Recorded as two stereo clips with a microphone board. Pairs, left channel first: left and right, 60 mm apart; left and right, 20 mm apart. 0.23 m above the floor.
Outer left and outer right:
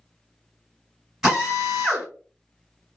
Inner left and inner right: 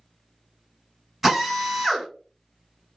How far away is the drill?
About 2 m.